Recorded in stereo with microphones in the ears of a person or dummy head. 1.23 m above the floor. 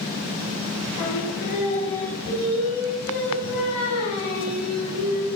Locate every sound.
1.0 s singing: 50° left (ahead or behind), 8.5 m